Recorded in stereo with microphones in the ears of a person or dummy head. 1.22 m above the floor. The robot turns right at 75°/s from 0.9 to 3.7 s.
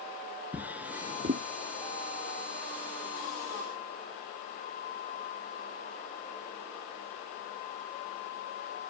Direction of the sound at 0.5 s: 10° right (ahead or behind).